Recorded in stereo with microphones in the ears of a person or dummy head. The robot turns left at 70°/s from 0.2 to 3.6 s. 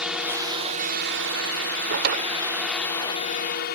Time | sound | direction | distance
0.0 | a drone | 5° right | ?
1.9 | a drawer | 75° right (ahead or behind) | ?